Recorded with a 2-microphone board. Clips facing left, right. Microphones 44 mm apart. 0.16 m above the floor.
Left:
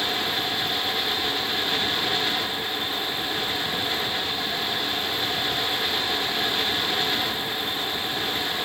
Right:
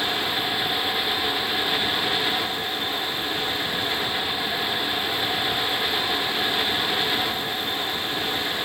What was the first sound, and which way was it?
Only background noise.